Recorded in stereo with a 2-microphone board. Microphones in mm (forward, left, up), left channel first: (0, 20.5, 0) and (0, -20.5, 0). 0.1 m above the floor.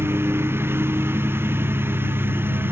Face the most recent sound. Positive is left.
turn(degrees=-65)  # may be behind; listen again after turning